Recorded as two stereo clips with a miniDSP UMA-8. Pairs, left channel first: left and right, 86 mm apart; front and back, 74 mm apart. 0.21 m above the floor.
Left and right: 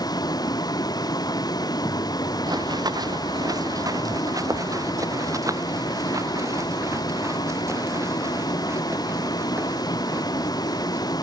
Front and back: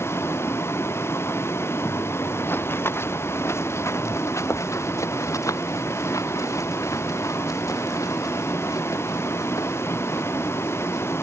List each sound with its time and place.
0.0 s a vehicle: 55° left
2.5 s running footsteps: 60° right; by 11.1 s 30° right